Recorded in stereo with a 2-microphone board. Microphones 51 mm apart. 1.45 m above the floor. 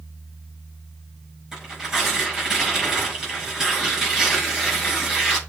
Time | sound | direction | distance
1.5 | tearing paper | 5° right (ahead or behind) | 5.5 m